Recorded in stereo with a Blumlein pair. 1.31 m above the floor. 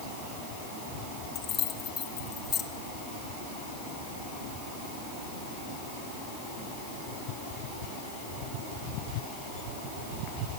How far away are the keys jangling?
About 1.4 m.